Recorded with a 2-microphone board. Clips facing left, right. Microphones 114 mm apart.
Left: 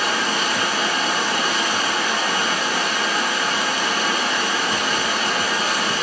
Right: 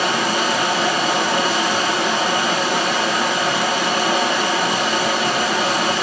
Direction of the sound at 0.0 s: 70° right (ahead or behind).